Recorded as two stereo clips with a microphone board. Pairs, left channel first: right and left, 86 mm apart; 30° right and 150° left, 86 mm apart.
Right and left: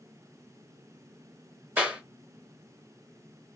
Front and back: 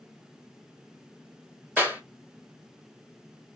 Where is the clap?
120° left, 1.1 m.